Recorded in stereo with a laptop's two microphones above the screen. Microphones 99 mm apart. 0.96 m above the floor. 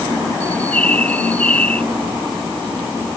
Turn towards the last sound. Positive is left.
turn(degrees=15)  # may be behind; listen again after turning